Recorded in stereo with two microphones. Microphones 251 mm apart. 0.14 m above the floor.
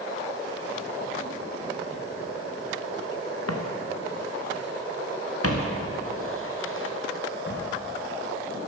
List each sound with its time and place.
3.5 s footsteps: 75° left (ahead or behind), 1.6 m; by 7.6 s 45° left (ahead or behind), 3 m